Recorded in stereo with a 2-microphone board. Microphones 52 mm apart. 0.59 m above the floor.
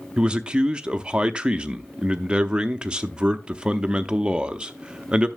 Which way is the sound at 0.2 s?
20° right (ahead or behind).